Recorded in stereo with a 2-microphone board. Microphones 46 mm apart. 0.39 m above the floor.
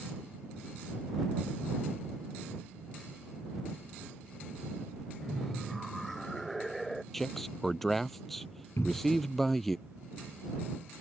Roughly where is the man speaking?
Centre.